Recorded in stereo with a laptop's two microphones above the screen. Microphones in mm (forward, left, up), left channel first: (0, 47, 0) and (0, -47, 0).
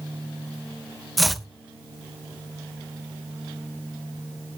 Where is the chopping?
Centre (ahead or behind), 0.9 m.